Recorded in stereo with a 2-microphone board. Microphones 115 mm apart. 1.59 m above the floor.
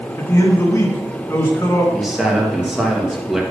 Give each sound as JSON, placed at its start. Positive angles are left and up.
{"t": 0.2, "sound": "a man speaking", "side_deg": 25, "distance_m": 3.5}
{"t": 1.9, "sound": "a man speaking", "side_deg": -5, "distance_m": 1.9}